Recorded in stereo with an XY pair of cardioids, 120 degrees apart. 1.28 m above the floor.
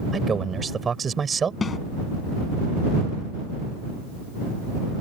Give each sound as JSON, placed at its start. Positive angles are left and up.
{"t": 0.1, "sound": "a man speaking", "azimuth_deg": -30}
{"t": 1.6, "sound": "a snare drum", "azimuth_deg": 35}